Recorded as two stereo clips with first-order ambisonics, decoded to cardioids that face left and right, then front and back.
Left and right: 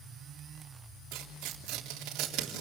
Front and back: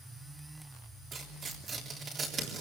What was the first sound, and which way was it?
Tearing paper, 115° right.